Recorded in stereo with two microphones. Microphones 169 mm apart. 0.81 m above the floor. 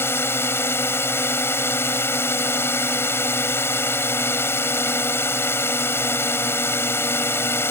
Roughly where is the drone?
Centre.